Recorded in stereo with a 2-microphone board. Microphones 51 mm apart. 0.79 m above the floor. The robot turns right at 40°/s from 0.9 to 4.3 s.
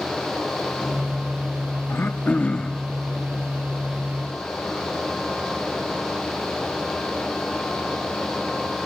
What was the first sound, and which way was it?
Throat clearing, 135° left.